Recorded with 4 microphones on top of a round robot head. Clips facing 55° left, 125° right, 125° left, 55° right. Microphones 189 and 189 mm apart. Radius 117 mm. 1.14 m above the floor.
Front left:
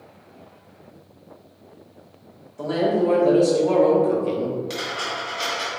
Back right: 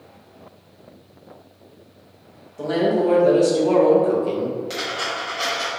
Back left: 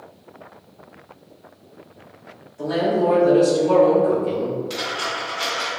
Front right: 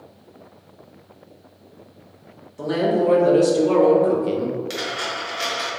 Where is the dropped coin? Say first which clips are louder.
Back right 1 dB, even; 30° right, 1.4 m.